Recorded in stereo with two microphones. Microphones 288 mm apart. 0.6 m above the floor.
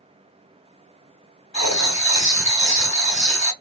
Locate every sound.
1.5 s writing: 65° left (ahead or behind), 2 m